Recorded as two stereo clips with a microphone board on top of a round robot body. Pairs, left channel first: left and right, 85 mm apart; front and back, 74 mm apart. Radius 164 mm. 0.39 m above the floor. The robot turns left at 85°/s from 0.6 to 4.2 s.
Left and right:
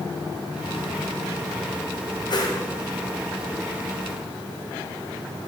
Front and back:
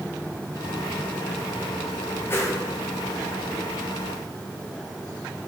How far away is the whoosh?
About 1.9 m.